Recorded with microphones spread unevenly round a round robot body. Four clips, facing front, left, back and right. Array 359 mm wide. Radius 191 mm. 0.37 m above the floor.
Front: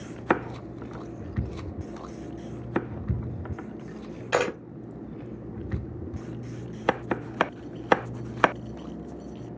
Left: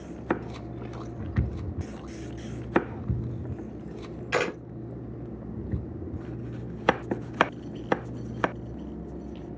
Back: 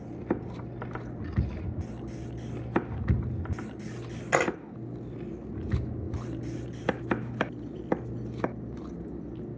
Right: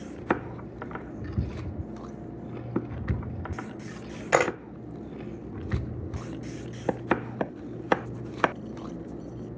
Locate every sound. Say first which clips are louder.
4.3 s a camera shutter: right 4 dB, front 1 dB; 85° right, 1.2 m